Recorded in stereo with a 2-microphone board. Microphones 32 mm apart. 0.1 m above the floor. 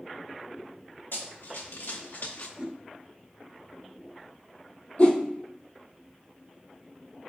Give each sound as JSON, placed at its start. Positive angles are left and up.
{"t": 1.1, "sound": "running footsteps", "side_deg": 85, "distance_m": 1.6}
{"t": 2.6, "sound": "a whoosh", "side_deg": -35, "distance_m": 0.6}
{"t": 5.0, "sound": "a whoosh", "side_deg": 40, "distance_m": 0.7}